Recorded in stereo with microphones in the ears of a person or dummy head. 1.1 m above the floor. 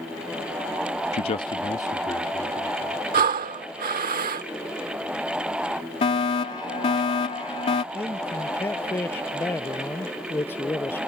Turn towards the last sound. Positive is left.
turn(degrees=10)  # may be behind; listen again after turning